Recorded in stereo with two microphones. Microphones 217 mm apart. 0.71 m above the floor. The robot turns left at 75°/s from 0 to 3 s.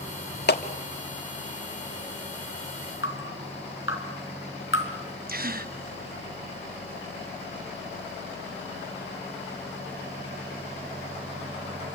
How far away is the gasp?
About 0.8 m.